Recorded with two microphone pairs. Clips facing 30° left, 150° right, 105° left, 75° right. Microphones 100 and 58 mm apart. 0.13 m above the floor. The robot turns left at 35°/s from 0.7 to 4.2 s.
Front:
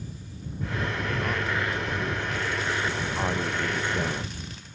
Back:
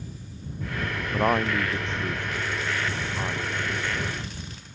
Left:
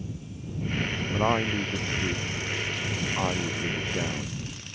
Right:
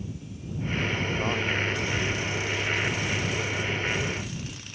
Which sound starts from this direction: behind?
A man speaking, at 1.1 s.